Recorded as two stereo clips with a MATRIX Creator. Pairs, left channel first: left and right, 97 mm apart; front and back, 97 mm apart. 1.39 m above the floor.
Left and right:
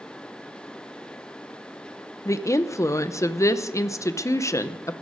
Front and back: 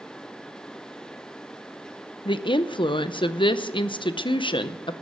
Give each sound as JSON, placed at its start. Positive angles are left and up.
{"t": 2.2, "sound": "a woman speaking", "azimuth_deg": 30, "distance_m": 0.6}